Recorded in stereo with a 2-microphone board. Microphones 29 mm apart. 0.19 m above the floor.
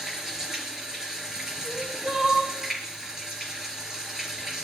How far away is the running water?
About 3 m.